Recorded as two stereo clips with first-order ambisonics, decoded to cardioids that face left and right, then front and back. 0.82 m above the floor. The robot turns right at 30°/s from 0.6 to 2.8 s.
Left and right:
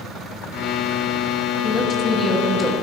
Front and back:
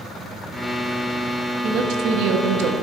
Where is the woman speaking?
145° left, 0.8 m; by 2.7 s straight behind, 0.8 m.